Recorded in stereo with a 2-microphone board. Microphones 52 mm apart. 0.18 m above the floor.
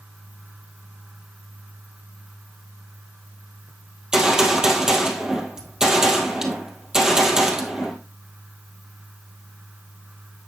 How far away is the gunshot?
About 1.9 m.